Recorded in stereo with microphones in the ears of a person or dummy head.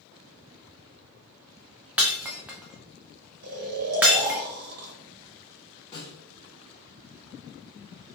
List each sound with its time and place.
2.0 s breaking glass: 5° right (ahead or behind), 0.6 m
3.4 s snoring: 55° right (ahead or behind), 1.0 m
5.9 s a snare drum: 30° left (ahead or behind), 1.4 m